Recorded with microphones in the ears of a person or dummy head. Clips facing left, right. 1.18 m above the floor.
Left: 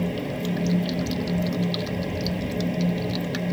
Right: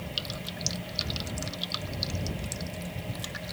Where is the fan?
60° left (ahead or behind).